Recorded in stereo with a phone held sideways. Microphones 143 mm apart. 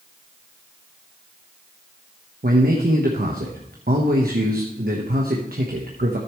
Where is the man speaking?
80° right, 1.2 m.